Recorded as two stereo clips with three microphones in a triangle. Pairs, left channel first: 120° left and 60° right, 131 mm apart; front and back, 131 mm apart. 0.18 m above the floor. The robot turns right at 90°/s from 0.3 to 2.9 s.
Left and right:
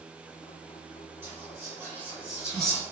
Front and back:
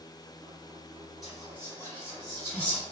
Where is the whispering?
90° right, 1.6 m; by 2.8 s 55° left, 1.6 m.